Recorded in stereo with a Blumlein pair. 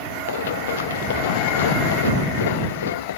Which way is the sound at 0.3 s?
60° left.